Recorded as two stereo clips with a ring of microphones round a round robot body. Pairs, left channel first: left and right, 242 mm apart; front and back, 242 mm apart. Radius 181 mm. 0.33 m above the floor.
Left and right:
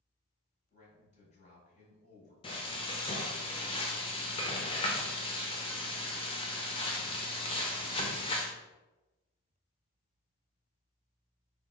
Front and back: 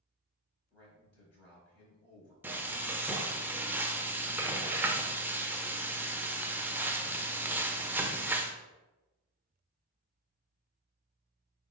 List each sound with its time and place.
0.7 s a man speaking: 35° left, 2.0 m
2.4 s frying: 110° left, 0.6 m